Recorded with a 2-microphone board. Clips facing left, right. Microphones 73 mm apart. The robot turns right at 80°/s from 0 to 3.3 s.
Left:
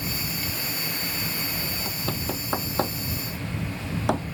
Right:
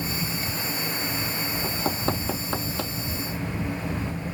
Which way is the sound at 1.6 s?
60° right (ahead or behind).